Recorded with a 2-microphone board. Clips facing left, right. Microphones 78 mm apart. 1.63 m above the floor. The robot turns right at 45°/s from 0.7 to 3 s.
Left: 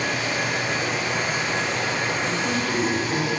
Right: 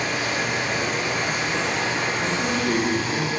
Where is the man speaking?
105° right, 0.9 m; by 3.3 s 70° right, 0.9 m.